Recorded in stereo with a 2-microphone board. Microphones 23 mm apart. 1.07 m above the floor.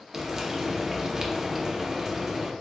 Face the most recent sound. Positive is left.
turn(degrees=-20)  # may be behind; listen again after turning